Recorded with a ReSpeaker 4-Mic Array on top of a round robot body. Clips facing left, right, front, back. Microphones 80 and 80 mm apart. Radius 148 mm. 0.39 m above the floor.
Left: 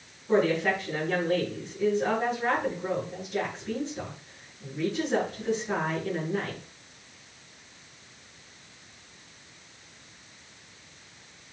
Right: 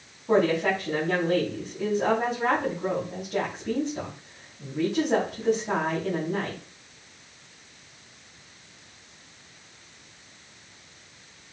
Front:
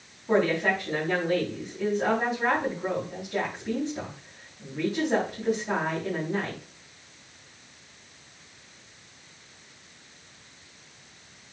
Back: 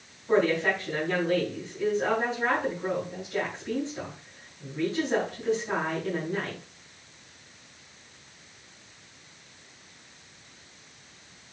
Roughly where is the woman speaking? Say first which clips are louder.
Right 2 dB, even; right.